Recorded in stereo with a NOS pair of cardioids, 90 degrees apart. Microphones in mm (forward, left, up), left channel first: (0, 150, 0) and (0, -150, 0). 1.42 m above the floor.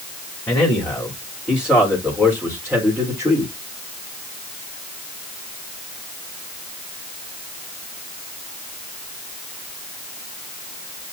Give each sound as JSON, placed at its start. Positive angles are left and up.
{"t": 0.5, "sound": "a man speaking", "azimuth_deg": 10, "distance_m": 5.0}